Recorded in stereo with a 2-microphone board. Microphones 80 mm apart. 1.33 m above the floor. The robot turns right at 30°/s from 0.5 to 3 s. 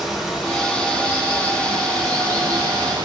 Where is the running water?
175° right, 1.2 m; by 3.0 s 100° right, 1.2 m.